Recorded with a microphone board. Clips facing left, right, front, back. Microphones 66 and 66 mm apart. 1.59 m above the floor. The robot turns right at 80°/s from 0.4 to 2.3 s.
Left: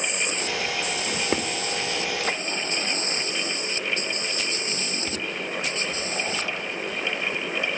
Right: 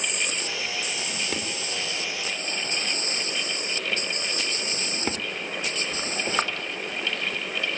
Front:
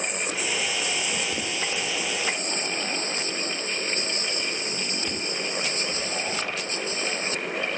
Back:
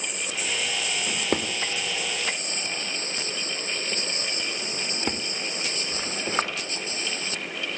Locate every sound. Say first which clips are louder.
1.1 s a drawer: left 5 dB, back 2 dB; 125° left, 3.5 m; by 6.5 s 135° right, 3.5 m